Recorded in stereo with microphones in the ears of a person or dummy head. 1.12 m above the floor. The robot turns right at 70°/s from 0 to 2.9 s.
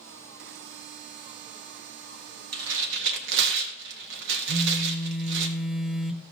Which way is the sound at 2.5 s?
80° right.